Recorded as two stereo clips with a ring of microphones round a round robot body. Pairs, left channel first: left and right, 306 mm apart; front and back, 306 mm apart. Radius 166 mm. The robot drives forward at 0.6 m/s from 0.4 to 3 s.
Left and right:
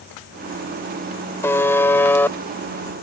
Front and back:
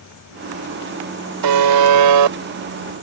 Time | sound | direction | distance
1.4 | a buzzer | 175° left | ?